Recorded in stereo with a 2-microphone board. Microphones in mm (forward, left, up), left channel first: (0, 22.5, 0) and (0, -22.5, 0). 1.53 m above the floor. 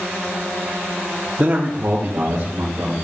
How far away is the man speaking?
About 0.8 m.